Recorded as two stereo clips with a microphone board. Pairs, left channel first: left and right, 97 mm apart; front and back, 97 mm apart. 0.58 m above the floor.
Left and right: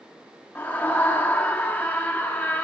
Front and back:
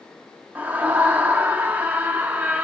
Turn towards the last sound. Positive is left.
turn(degrees=135)